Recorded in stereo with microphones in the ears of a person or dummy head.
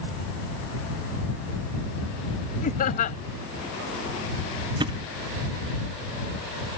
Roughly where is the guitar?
I don't hear a guitar.